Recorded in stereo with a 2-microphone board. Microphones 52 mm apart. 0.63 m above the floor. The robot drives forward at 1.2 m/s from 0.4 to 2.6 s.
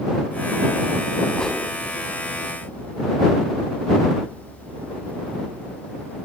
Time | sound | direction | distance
1.3 | a whoosh | 15° left (ahead or behind) | 6 m